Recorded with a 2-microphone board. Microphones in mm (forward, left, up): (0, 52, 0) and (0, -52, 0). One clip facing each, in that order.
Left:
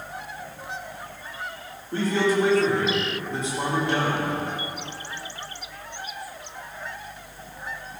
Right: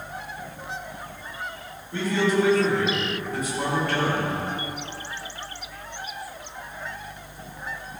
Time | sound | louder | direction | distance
1.9 | a man speaking | left 1 dB | 45° left (ahead or behind) | 4 m